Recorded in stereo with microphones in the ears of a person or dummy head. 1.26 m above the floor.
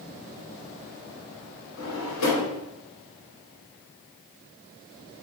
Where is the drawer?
80° left, 2.5 m.